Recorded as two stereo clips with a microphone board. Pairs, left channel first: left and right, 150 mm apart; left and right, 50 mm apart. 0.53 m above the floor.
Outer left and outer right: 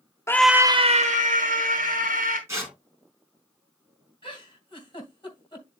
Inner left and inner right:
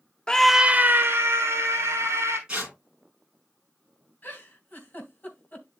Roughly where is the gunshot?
No gunshot in this recording.